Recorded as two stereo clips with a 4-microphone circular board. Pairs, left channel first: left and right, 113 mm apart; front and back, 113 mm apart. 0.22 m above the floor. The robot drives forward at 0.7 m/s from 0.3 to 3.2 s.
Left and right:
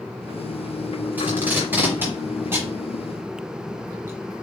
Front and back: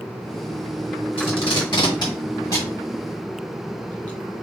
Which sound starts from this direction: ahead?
Tape being pulled, at 1.2 s.